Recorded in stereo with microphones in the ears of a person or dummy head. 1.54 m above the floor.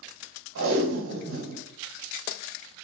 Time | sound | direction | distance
0.6 | tape being pulled | 80° right | 1.5 m